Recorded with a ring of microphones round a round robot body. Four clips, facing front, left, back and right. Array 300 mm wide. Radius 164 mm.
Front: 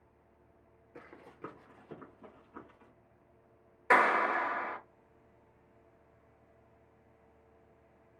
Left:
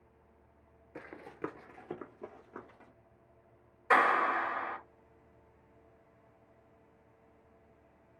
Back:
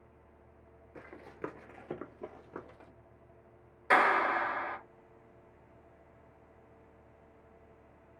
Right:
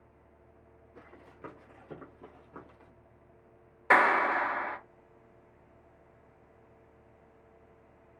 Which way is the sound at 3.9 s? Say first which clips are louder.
Right 3 dB, even; 75° right.